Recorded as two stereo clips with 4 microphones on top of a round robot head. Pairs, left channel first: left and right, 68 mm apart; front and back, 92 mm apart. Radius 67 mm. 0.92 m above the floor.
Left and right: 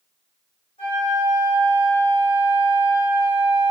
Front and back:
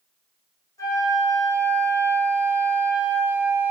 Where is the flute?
55° left, 3.5 m.